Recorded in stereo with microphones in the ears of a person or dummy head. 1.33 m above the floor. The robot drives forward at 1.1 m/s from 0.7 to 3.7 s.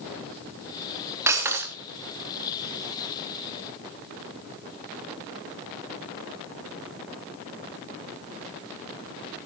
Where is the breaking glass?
10° right (ahead or behind), 2 m.